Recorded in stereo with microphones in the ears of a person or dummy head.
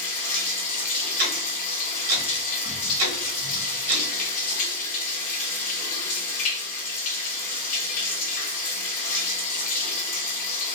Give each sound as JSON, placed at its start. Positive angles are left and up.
{"t": 0.0, "sound": "running water", "side_deg": 40, "distance_m": 1.0}
{"t": 1.2, "sound": "ticking", "side_deg": -45, "distance_m": 1.2}